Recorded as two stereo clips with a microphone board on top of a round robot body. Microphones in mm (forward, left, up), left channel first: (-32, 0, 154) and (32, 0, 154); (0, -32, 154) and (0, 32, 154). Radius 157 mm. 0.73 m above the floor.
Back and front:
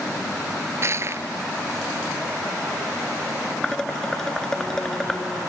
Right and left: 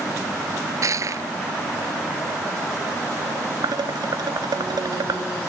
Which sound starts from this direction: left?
Dishes clattering, at 3.6 s.